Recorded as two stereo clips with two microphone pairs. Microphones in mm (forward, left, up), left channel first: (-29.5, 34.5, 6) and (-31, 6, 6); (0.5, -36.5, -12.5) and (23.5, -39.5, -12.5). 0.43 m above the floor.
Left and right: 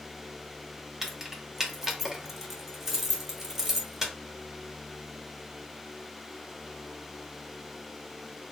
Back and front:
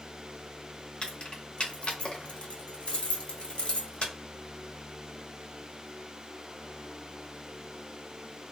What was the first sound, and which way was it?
Keys jangling, straight behind.